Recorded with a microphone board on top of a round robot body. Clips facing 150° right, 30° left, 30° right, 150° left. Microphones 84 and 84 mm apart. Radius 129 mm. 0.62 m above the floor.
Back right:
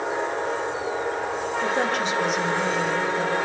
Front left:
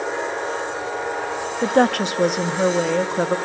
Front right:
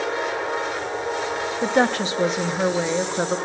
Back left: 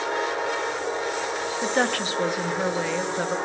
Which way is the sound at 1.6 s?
35° left.